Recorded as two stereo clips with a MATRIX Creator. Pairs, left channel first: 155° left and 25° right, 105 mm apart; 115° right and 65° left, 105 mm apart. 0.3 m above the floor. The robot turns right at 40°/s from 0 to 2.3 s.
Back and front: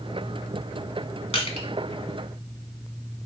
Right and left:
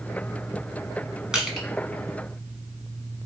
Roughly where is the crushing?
Behind left.